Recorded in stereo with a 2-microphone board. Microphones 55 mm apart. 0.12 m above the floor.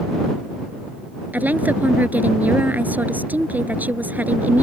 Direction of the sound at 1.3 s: 35° right (ahead or behind).